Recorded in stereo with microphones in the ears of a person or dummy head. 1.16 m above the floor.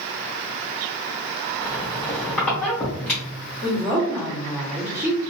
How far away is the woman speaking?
About 1.1 m.